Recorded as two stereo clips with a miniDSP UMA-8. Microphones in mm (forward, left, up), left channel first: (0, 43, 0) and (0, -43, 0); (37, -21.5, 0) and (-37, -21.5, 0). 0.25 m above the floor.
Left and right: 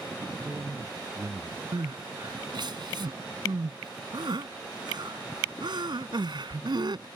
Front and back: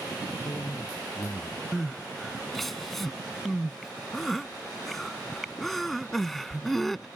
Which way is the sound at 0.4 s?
40° right.